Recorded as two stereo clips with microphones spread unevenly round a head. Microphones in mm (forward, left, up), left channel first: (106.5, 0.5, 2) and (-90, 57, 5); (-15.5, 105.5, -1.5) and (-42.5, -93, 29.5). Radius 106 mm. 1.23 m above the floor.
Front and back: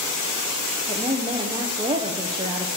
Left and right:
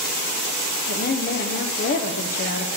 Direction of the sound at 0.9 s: 100° left.